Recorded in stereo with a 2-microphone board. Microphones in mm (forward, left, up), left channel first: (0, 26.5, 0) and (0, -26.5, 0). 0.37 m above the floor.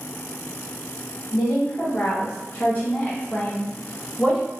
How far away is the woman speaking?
About 1.2 m.